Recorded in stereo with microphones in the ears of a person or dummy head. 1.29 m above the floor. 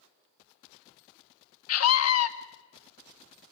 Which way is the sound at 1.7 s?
80° left.